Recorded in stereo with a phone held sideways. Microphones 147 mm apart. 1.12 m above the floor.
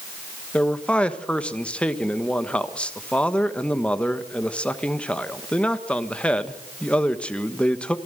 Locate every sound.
0.5 s a man speaking: 5° left (ahead or behind), 1.2 m